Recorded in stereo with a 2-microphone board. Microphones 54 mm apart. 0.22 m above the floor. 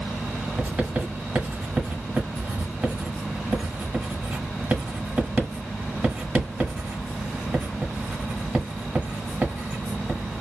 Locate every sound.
0.6 s writing: 25° right (ahead or behind), 1.3 m